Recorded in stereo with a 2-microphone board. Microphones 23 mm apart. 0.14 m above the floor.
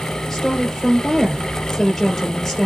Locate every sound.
0.3 s a woman speaking: 10° left (ahead or behind), 3 m